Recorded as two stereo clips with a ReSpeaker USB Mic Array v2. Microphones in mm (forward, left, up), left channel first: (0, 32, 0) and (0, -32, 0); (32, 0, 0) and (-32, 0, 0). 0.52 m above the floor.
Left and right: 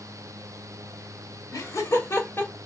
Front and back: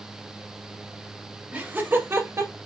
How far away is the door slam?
No door slam in this recording.